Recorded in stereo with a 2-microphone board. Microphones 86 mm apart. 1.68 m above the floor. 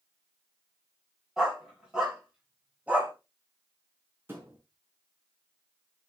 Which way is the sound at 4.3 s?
25° right (ahead or behind).